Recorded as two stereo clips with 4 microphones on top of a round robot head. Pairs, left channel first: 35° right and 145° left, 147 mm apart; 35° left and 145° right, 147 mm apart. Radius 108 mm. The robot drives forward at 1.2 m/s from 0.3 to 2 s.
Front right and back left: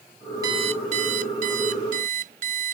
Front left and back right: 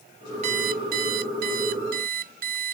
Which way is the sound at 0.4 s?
160° right.